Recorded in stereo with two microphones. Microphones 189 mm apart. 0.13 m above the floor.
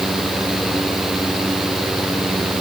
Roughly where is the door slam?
No door slam in this recording.